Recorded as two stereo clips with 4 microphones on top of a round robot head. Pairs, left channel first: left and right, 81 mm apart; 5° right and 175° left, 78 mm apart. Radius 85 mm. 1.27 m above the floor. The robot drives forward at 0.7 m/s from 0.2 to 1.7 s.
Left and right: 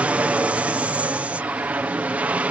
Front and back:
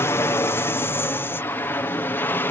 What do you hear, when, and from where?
0.0 s an aircraft: 30° right; by 2.5 s 35° right